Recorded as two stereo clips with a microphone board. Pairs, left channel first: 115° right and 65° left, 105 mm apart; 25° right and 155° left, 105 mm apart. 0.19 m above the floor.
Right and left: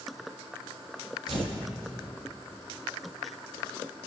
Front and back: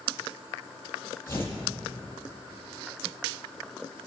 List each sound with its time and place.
1.3 s tearing paper: 45° left, 5.5 m